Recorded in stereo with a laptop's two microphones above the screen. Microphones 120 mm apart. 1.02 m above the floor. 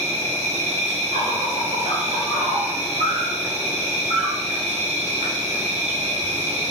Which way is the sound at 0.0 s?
70° right (ahead or behind).